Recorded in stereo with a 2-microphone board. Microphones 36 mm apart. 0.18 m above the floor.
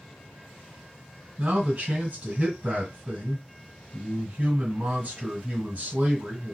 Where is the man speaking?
40° right (ahead or behind), 2 m.